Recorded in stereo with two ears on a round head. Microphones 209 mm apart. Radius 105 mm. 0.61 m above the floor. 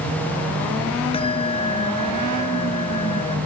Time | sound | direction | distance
1.1 | a bell | 25° left (ahead or behind) | ?